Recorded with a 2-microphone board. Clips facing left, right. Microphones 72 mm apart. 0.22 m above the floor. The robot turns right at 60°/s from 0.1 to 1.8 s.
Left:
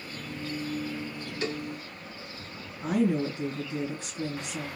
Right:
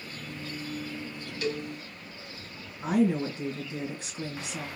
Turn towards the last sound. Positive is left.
turn(degrees=-20)  # may be behind; listen again after turning